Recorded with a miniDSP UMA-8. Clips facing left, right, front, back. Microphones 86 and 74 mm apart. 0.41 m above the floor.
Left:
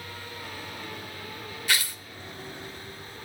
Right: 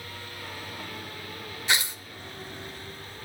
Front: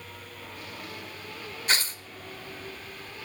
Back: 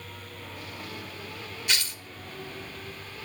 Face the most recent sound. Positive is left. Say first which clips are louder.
# right 1 dB, front 3 dB
turn(degrees=-30)